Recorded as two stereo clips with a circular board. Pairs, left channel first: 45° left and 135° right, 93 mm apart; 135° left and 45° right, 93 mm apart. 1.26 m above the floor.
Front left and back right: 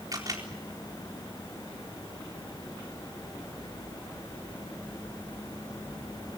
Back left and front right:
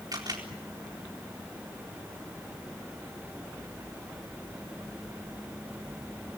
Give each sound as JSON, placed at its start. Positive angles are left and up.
{"t": 0.1, "sound": "a camera shutter", "azimuth_deg": -90, "distance_m": 4.0}